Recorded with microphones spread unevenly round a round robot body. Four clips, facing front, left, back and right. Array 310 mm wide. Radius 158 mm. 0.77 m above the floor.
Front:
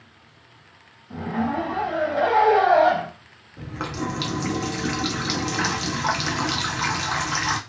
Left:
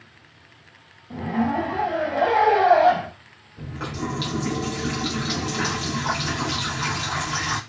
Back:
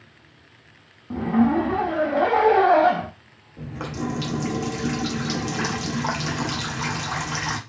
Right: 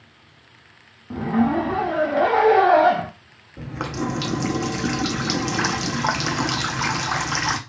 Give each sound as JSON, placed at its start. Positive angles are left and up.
{"t": 1.1, "sound": "a zipper", "azimuth_deg": -125, "distance_m": 0.5}
{"t": 3.6, "sound": "a running tap", "azimuth_deg": -65, "distance_m": 0.7}